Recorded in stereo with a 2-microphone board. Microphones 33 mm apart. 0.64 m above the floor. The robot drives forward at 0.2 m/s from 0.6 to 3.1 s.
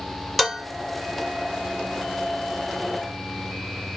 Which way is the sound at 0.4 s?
5° right (ahead or behind).